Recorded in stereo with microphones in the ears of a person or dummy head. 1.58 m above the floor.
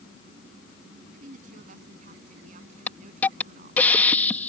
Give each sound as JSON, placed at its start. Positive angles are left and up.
{"t": 1.1, "sound": "a woman speaking", "side_deg": -50}
{"t": 2.9, "sound": "a hiss", "side_deg": 10}